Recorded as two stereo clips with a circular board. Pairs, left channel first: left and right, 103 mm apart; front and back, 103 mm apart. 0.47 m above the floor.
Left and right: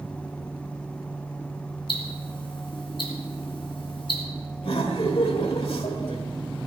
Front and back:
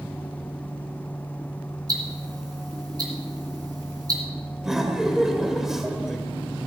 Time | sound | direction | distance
1.9 | ticking | 130° left | 2.5 m
4.6 | laughter | 95° left | 1.3 m